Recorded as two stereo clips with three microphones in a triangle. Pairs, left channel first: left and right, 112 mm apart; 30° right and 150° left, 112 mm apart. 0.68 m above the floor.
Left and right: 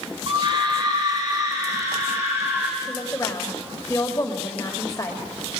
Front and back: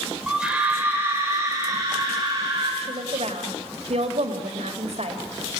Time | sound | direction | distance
0.3 | a scream | 125° right | 2 m
2.8 | a woman speaking | 155° left | 3 m